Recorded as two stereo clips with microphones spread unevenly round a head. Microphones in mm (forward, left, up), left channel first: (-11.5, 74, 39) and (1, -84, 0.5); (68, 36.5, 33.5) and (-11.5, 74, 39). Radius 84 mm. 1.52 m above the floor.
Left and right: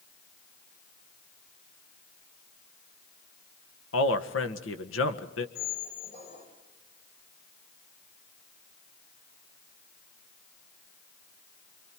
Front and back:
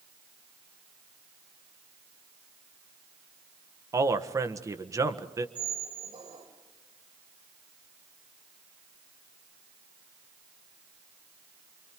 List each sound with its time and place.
3.9 s a man speaking: 100° left, 1.5 m
5.5 s a squeak: 120° left, 5.5 m